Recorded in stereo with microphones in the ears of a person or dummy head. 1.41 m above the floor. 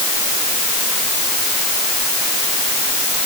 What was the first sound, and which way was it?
Only background noise.